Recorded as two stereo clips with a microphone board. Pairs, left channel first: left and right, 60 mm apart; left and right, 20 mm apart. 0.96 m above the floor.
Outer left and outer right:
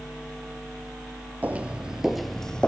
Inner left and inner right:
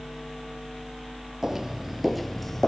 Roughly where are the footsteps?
Right.